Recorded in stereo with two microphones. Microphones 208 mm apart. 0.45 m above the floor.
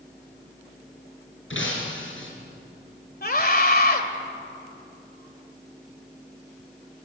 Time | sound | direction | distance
1.5 | breaking glass | 75° left (ahead or behind) | 4 m
3.2 | a scream | 50° left (ahead or behind) | 2 m